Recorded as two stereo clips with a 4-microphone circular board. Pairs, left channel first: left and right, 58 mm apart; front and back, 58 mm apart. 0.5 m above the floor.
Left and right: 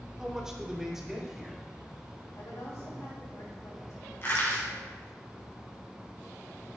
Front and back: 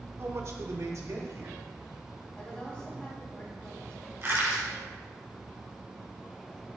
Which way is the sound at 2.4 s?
70° left.